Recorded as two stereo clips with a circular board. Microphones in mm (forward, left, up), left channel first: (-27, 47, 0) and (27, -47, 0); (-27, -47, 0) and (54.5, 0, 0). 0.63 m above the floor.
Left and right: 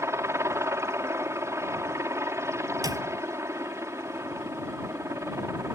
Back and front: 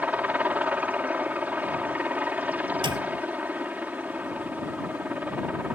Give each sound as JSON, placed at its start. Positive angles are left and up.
{"t": 0.0, "sound": "a helicopter", "azimuth_deg": -25}
{"t": 2.8, "sound": "a clap", "azimuth_deg": -5}